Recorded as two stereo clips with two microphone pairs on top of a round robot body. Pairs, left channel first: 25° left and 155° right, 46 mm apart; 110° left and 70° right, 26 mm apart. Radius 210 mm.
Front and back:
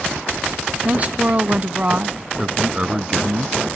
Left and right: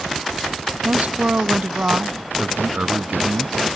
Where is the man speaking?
90° right.